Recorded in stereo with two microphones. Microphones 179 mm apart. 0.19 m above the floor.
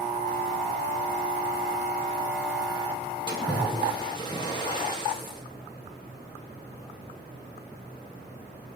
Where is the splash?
25° left (ahead or behind), 4.5 m.